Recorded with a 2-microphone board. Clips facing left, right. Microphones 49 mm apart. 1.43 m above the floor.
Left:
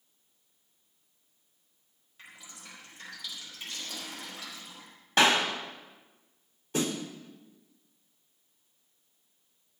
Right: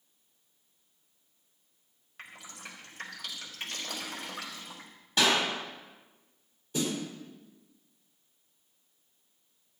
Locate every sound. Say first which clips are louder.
2.2 s dripping: right 4 dB; 60° right (ahead or behind), 4 m
5.2 s a clap: left 3 dB; 55° left (ahead or behind), 4 m
6.7 s a snare drum: left 1 dB; 65° left (ahead or behind), 5 m